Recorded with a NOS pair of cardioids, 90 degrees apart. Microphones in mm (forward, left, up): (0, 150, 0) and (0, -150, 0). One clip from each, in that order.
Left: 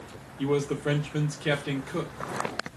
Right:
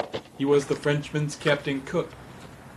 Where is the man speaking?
35° right, 0.9 m.